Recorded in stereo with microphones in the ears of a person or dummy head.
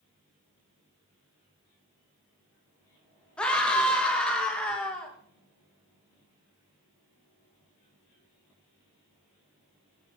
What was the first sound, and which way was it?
A scream, 10° left (ahead or behind).